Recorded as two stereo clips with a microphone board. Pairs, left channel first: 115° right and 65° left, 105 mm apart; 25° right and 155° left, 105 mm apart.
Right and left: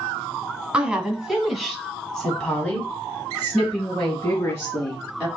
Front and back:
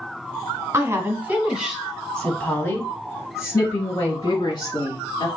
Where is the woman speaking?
135° left, 1.4 m; by 5.3 s 50° right, 2.5 m.